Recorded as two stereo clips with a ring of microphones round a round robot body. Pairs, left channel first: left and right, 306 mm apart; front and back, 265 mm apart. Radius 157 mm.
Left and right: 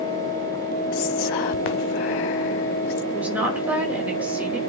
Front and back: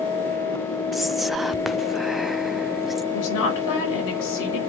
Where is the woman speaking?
5° right, 5 m.